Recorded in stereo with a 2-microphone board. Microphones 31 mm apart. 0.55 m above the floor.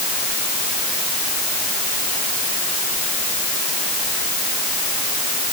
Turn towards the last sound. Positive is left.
No sound to turn to.